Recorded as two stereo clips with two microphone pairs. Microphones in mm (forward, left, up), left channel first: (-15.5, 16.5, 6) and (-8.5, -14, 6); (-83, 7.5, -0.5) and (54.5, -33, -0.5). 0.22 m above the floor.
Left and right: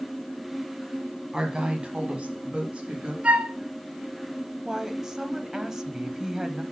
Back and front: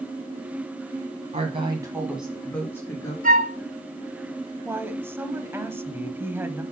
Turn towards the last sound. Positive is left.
turn(degrees=-55)